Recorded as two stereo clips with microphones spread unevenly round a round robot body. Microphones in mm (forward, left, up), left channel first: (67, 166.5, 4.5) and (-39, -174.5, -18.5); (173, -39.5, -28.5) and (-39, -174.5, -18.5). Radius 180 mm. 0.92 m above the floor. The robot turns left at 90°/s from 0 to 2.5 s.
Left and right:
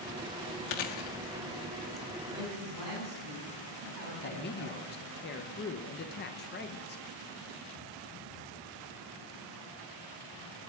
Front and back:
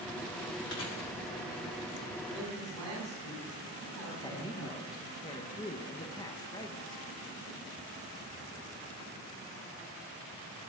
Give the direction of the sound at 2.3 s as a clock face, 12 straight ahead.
4 o'clock.